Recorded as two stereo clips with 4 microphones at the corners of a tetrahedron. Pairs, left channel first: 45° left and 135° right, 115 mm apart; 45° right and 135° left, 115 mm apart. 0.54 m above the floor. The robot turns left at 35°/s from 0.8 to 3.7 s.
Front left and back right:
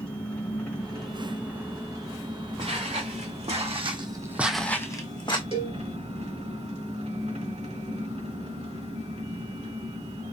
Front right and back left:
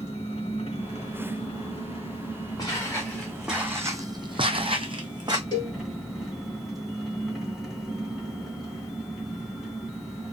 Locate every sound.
0.0 s an engine running: 35° right, 2 m; by 10.3 s 135° right, 2 m
2.6 s footsteps: 95° right, 2.5 m; by 5.4 s 85° left, 1.4 m
5.5 s a cowbell: 95° right, 1.7 m